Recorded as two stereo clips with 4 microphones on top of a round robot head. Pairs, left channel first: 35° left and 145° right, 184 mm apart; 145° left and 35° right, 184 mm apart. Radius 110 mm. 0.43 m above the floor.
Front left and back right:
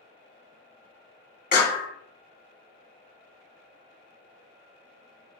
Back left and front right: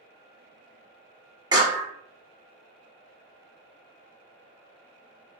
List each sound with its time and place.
1.5 s a clap: 25° left, 1.3 m